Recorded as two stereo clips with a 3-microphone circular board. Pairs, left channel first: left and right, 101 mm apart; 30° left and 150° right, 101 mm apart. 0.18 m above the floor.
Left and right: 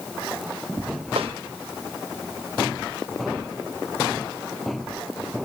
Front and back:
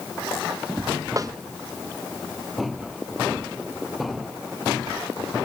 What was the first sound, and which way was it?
A snare drum, 95° right.